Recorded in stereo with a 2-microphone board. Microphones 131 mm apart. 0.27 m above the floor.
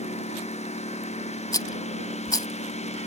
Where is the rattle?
30° left (ahead or behind).